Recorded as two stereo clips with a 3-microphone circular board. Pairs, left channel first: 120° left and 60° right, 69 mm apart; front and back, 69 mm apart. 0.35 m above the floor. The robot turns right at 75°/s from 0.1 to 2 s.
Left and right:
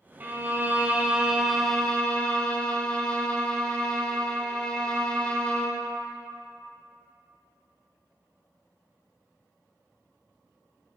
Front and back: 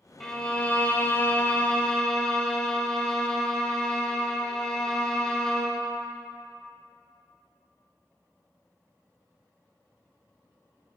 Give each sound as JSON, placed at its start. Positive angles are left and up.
{"t": 0.2, "sound": "a violin", "azimuth_deg": -75, "distance_m": 0.6}